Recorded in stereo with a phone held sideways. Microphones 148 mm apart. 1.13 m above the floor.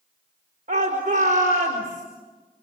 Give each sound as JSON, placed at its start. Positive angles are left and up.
{"t": 0.7, "sound": "a shout", "side_deg": -65, "distance_m": 4.0}